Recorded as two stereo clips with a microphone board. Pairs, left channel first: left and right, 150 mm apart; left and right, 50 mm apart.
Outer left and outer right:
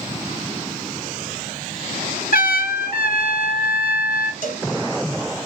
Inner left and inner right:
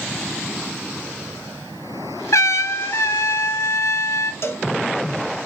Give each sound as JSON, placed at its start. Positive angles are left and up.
{"t": 2.3, "sound": "a trumpet", "side_deg": 90, "distance_m": 0.8}
{"t": 4.4, "sound": "a cowbell", "side_deg": 60, "distance_m": 1.0}